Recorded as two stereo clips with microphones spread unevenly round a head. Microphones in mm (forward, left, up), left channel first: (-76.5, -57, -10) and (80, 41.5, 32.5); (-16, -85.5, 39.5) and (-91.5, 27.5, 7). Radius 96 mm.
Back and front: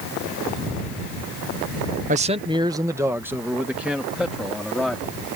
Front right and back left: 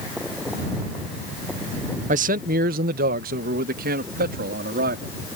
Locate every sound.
2.1 s a man speaking: 85° left; by 5.1 s 120° left